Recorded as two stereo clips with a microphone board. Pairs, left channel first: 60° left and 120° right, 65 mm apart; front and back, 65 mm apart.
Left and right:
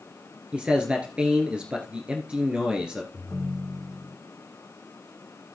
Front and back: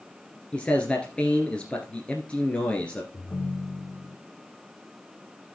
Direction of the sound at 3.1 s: 25° right.